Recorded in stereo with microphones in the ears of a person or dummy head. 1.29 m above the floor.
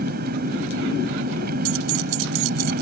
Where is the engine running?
60° right (ahead or behind).